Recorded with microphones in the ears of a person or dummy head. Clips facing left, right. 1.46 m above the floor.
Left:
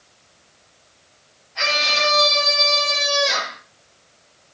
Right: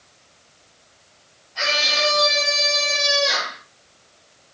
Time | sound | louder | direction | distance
1.6 | a scream | even | centre (ahead or behind) | 6.5 m